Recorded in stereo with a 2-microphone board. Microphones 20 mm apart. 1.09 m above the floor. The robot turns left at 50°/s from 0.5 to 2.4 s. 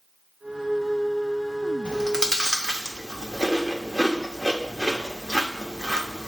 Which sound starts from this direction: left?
Chewing, at 1.9 s.